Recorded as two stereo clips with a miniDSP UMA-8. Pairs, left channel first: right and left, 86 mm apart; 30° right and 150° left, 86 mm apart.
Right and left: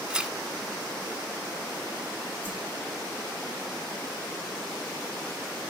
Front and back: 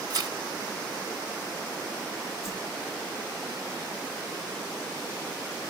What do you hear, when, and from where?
0.1 s tearing paper: 170° left, 0.7 m
2.4 s a whoosh: 20° left, 1.8 m